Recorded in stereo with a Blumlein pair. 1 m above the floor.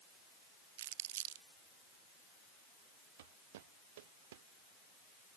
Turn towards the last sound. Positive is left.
turn(degrees=-55)